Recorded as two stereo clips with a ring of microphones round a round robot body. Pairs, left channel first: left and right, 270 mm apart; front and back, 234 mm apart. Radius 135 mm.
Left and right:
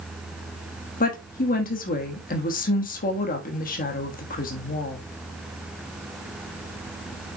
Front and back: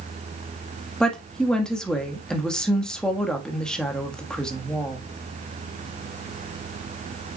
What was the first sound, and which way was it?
A woman speaking, 85° left.